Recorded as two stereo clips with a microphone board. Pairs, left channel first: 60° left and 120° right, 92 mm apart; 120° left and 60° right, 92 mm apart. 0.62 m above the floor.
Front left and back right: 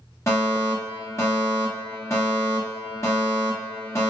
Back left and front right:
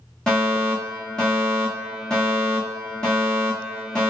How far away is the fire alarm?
About 1.7 m.